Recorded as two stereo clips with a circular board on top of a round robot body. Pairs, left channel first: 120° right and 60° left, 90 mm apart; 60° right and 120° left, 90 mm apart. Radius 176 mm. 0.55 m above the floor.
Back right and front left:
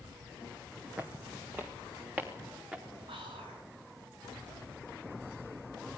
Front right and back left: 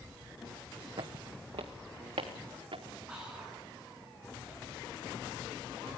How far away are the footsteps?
About 1.5 m.